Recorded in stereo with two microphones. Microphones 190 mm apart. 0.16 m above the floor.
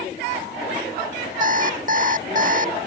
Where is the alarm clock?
45° right (ahead or behind).